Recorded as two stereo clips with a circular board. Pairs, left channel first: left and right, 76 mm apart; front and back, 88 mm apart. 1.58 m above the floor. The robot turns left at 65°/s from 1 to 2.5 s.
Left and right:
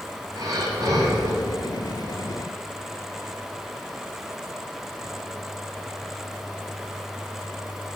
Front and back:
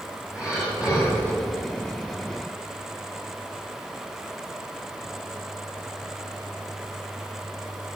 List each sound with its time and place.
0.3 s breathing: 105° right, 2.5 m; by 1.3 s 125° right, 2.5 m